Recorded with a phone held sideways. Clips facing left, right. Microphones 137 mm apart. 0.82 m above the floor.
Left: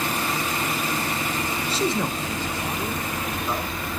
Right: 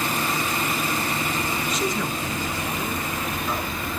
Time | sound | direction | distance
1.7 | a man speaking | 30° left (ahead or behind) | 0.7 m